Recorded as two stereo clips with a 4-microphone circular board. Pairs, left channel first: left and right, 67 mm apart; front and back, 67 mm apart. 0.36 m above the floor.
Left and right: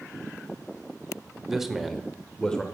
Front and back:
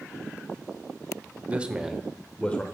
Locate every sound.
1.5 s a man speaking: 160° right, 0.8 m; by 2.6 s 30° left, 0.8 m